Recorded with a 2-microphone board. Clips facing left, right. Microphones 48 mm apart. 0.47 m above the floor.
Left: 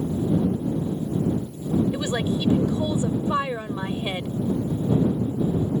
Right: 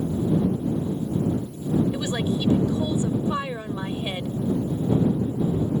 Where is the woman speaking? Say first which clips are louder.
Left 1 dB; 20° left (ahead or behind).